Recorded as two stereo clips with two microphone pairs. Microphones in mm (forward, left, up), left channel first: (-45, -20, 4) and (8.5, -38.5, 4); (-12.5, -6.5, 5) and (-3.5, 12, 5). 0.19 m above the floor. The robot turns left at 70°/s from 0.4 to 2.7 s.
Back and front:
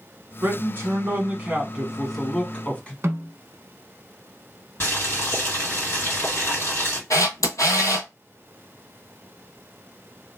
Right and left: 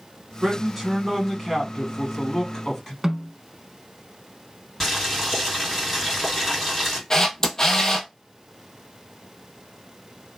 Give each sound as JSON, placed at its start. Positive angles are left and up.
{"t": 0.4, "sound": "a man speaking", "azimuth_deg": 10, "distance_m": 1.4}
{"t": 3.0, "sound": "a snare drum", "azimuth_deg": -5, "distance_m": 0.6}
{"t": 4.8, "sound": "boiling", "azimuth_deg": 155, "distance_m": 2.0}
{"t": 7.1, "sound": "a camera shutter", "azimuth_deg": 180, "distance_m": 0.9}